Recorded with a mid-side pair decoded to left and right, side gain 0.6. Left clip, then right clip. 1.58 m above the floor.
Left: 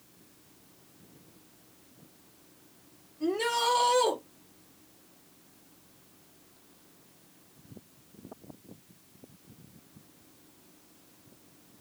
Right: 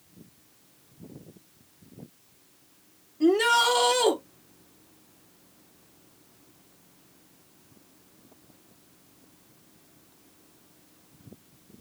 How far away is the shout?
About 2.5 m.